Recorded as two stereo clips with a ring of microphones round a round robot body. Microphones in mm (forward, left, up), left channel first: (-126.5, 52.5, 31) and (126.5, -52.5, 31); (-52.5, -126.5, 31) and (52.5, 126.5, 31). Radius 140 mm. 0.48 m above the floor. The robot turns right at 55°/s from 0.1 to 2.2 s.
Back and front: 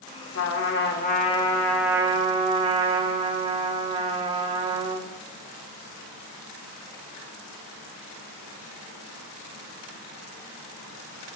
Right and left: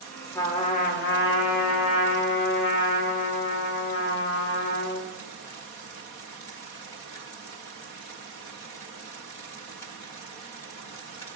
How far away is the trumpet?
About 1.2 m.